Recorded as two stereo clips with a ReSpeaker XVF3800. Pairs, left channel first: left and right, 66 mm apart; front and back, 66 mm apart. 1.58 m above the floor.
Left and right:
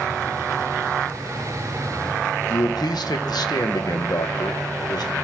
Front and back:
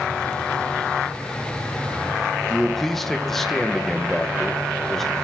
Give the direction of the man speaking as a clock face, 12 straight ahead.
9 o'clock.